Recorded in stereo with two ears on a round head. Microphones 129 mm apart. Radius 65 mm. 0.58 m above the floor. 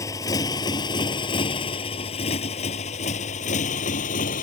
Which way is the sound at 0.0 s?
25° left (ahead or behind).